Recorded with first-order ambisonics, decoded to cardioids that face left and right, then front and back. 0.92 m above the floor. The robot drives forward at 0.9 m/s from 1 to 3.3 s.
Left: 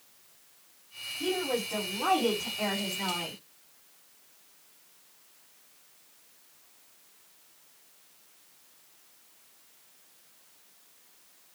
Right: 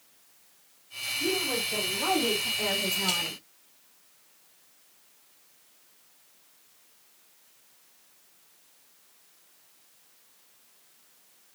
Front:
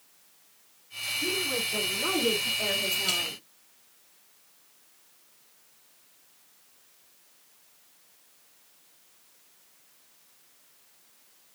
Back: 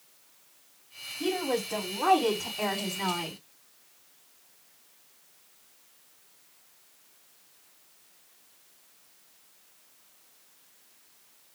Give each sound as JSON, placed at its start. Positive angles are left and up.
{"t": 1.2, "sound": "a woman speaking", "azimuth_deg": 170, "distance_m": 5.0}